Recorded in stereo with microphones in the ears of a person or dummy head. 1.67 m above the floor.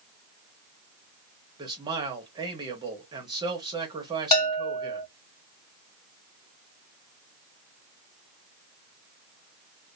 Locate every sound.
1.6 s a man speaking: 25° right (ahead or behind), 1.0 m
4.3 s a bell: 25° left (ahead or behind), 1.5 m